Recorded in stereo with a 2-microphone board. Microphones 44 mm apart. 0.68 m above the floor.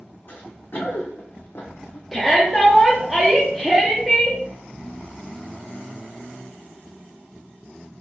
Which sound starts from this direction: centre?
A shout, at 2.1 s.